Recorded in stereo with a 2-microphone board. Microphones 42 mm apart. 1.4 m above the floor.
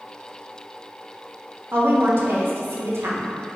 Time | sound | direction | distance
1.7 | a woman speaking | 65° right (ahead or behind) | 0.8 m